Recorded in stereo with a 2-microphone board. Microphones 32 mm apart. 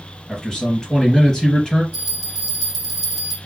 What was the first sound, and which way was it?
A man speaking, 20° left (ahead or behind).